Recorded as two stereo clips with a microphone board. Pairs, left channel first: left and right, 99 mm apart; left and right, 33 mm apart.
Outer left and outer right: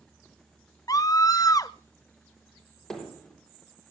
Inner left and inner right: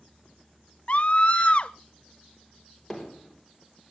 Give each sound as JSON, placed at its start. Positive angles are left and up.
{"t": 0.9, "sound": "a scream", "side_deg": 35, "distance_m": 0.7}
{"t": 2.9, "sound": "hammering", "side_deg": 5, "distance_m": 4.0}